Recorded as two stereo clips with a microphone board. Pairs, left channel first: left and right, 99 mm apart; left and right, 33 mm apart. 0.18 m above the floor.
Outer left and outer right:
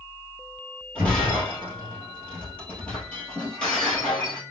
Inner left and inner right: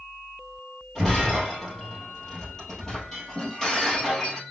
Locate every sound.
0.9 s breaking glass: 10° left (ahead or behind), 1.9 m